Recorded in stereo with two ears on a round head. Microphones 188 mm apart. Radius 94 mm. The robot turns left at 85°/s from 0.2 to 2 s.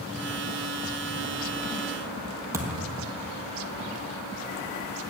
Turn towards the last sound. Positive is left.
turn(degrees=-15)  # may be behind; listen again after turning